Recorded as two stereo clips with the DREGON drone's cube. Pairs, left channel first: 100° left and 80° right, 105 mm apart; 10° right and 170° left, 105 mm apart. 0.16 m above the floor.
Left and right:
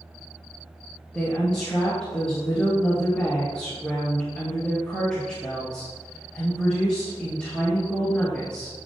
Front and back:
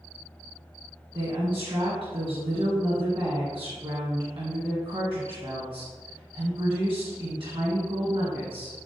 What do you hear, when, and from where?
1.1 s a woman speaking: straight behind, 1.9 m